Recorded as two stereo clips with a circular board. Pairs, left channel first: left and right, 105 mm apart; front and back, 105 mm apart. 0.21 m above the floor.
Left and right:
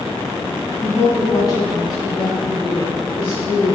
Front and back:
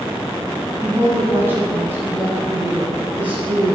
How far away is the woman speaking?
About 1.3 m.